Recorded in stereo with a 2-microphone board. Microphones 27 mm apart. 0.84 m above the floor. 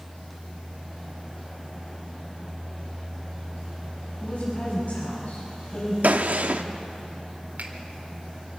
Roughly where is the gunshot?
Right.